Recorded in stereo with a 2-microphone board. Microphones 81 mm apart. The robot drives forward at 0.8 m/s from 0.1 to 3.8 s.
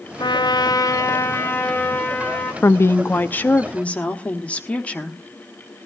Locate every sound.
0.2 s a trumpet: 65° left (ahead or behind), 0.6 m; by 2.5 s 20° left (ahead or behind), 1.9 m
2.6 s a woman speaking: 30° left (ahead or behind), 0.6 m; by 5.2 s 15° left (ahead or behind), 1.1 m